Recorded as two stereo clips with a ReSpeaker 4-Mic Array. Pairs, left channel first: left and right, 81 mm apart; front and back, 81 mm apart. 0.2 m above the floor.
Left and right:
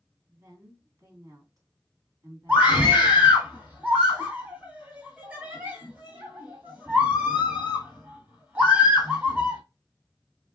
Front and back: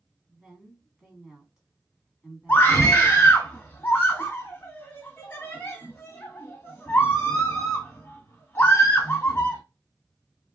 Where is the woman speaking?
95° right, 1.9 m.